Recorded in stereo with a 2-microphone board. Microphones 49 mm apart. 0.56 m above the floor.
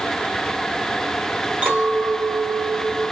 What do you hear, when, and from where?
1.6 s a clink: 30° right (ahead or behind), 2.0 m